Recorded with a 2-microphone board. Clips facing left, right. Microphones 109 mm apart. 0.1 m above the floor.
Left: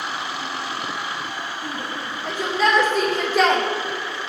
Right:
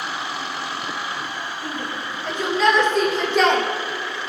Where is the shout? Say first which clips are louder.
Right 1 dB; 10° left (ahead or behind), 6.5 m; by 3.6 s 5° left (ahead or behind), 4 m.